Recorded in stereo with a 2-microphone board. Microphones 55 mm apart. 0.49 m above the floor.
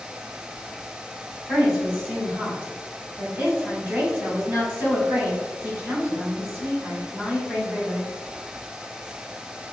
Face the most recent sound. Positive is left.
turn(degrees=-35)  # may be behind; listen again after turning